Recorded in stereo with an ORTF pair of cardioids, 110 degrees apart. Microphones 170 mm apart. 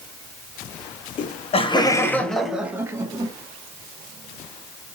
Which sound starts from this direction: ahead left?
Laughter, at 1.2 s.